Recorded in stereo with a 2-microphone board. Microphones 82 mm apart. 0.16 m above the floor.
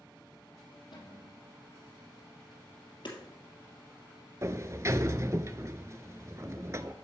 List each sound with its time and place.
0.9 s a cupboard door: 65° left (ahead or behind), 4.5 m
3.0 s hammering: 70° left (ahead or behind), 2.5 m
4.4 s a sliding door: 40° right (ahead or behind), 0.5 m